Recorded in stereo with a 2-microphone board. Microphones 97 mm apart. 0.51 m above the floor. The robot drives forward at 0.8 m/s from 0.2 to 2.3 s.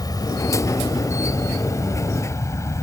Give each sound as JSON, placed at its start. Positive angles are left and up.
{"t": 0.0, "sound": "an insect", "side_deg": 40}